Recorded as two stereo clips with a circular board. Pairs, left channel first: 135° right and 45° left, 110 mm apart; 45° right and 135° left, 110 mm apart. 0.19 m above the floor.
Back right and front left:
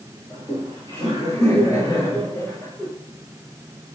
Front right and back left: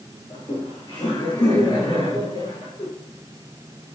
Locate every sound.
0.3 s laughter: 95° right, 3 m; by 2.9 s 70° right, 3.5 m